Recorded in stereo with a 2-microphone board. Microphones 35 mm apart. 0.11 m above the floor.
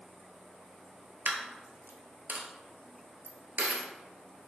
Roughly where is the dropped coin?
Right.